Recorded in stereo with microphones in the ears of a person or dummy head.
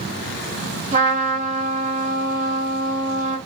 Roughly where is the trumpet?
Right.